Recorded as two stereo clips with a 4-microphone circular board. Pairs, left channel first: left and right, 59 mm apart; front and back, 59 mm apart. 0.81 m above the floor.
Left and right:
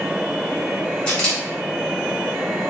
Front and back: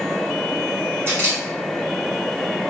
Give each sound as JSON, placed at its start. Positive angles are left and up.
{"t": 1.1, "sound": "a camera shutter", "azimuth_deg": 150, "distance_m": 1.3}